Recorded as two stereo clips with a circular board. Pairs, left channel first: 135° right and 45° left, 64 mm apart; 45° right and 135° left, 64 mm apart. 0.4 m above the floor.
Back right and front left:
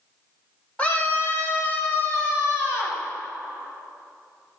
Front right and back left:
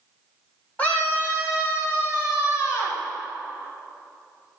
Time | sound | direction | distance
0.8 | a scream | 85° right | 1.3 m